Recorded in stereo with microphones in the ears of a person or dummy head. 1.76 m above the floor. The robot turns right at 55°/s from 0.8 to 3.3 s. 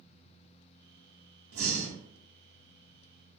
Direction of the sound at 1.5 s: 85° right.